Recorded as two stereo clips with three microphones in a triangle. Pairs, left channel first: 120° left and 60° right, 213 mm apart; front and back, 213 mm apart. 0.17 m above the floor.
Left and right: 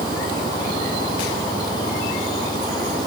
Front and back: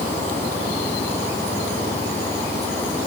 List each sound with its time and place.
Only background noise.